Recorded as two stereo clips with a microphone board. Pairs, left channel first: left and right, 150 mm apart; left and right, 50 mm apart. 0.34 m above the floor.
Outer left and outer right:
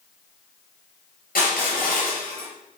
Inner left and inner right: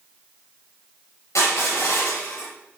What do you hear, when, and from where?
1.4 s crushing: 70° left (ahead or behind), 4.5 m